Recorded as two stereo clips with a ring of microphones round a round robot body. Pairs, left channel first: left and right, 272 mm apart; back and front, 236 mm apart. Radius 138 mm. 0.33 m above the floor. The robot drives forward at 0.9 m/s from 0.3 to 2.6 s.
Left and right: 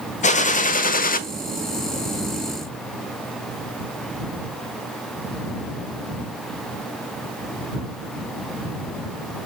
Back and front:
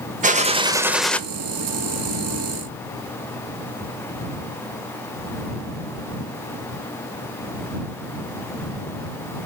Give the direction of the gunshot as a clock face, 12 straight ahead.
11 o'clock.